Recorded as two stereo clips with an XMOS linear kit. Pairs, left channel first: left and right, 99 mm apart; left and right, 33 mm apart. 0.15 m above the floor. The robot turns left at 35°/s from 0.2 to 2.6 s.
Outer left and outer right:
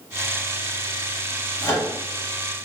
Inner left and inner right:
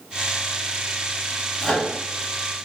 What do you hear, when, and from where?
1.6 s a microwave: 30° left (ahead or behind), 1.6 m; by 1.9 s 20° left (ahead or behind), 1.6 m